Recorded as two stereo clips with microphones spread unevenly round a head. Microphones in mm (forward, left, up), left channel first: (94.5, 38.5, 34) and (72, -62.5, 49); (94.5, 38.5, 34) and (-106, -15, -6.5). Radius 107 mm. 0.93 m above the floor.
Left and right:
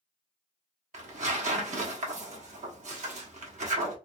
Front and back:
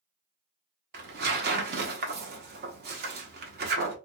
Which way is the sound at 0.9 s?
115° right.